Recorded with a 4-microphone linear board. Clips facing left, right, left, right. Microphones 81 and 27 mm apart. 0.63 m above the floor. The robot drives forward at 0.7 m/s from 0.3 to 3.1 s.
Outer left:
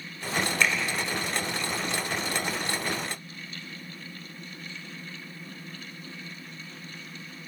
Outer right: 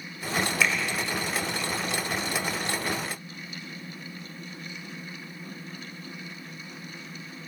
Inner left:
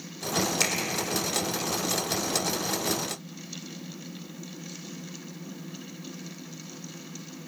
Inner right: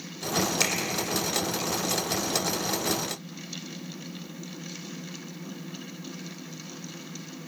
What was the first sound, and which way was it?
A finger snap, centre (ahead or behind).